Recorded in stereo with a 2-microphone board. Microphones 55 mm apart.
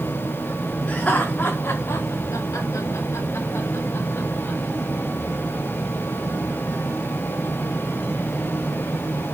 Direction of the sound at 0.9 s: 20° left (ahead or behind).